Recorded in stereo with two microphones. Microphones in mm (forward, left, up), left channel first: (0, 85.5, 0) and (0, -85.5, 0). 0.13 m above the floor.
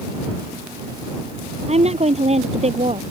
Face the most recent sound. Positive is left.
turn(degrees=-40)  # may be behind; listen again after turning